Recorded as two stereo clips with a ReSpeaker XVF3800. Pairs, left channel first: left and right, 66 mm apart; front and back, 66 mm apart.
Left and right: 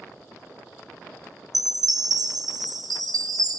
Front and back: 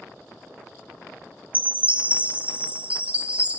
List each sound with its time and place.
1.5 s a chime: 110° right, 0.7 m